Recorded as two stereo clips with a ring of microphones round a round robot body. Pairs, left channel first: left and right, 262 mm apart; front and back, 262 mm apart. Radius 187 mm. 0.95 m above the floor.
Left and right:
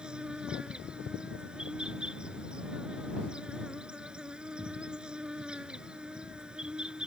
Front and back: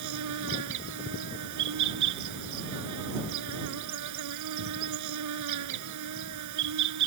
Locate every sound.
0.0 s an insect: straight behind